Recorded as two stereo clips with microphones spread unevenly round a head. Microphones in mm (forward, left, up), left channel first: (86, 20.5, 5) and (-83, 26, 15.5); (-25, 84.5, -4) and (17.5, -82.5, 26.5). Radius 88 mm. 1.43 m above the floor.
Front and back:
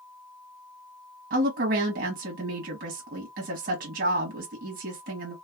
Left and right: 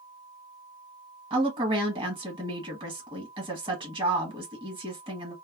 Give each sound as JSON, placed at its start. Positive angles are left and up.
{"t": 1.3, "sound": "a woman speaking", "azimuth_deg": -145, "distance_m": 1.1}